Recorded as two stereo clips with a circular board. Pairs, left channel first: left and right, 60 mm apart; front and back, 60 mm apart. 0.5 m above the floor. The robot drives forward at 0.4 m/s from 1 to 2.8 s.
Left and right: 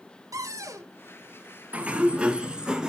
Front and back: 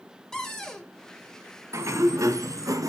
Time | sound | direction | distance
0.3 | a cupboard door | 80° right | 1.4 m
1.7 | a sliding door | 155° right | 0.6 m